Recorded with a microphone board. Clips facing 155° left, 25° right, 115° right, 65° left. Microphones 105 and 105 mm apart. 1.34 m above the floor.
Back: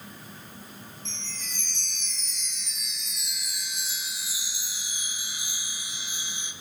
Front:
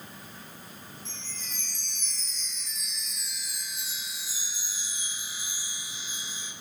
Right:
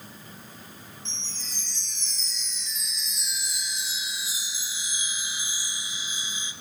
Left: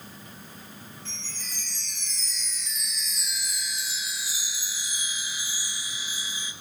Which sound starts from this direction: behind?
A chime, at 1.1 s.